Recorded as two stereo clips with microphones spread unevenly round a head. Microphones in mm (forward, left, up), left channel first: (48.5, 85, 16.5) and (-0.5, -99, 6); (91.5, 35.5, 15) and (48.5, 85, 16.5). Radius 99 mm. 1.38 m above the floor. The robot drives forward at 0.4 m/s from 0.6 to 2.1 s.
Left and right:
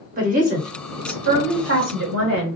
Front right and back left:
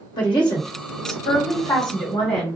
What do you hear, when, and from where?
0.2 s a woman speaking: 55° right, 1.2 m; by 2.6 s 90° right, 1.0 m